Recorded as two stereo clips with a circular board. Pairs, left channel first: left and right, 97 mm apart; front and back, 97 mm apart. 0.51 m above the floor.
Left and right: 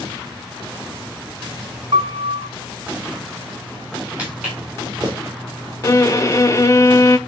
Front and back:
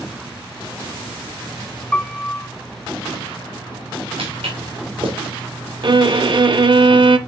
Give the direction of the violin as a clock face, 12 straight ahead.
7 o'clock.